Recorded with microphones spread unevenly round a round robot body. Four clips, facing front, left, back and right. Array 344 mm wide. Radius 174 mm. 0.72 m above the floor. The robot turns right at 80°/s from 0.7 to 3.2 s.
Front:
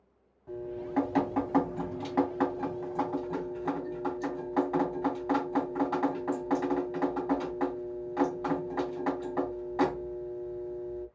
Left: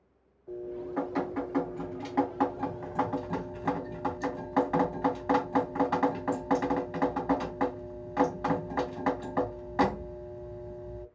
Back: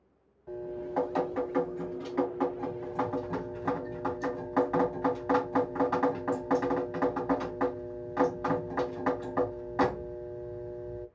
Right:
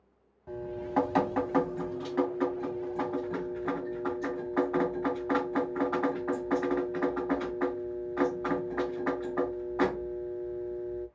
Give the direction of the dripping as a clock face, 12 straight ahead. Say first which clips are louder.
Right 1 dB, even; 3 o'clock.